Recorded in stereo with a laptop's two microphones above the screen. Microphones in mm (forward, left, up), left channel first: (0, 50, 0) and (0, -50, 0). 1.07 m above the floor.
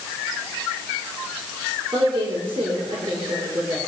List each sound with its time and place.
1.9 s a woman speaking: 75° right (ahead or behind), 3.5 m